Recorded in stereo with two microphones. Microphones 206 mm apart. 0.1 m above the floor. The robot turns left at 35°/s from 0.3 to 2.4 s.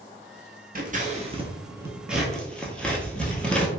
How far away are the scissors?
About 0.7 m.